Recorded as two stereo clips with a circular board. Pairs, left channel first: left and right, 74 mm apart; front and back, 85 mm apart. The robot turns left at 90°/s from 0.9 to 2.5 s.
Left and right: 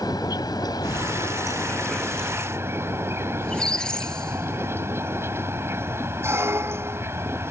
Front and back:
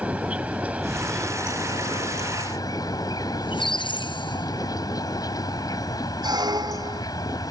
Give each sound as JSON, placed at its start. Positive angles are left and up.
{"t": 0.0, "sound": "an insect", "azimuth_deg": 110}
{"t": 3.4, "sound": "a squeak", "azimuth_deg": 10}
{"t": 6.2, "sound": "a squeak", "azimuth_deg": -145}